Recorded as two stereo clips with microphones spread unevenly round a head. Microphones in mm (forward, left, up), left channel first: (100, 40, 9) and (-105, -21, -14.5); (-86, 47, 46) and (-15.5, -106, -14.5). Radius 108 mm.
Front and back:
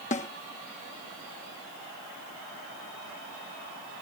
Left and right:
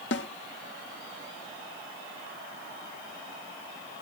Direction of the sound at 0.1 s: 75° left.